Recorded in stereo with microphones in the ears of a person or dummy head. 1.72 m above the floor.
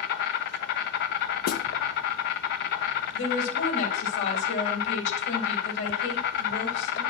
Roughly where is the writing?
I don't hear writing.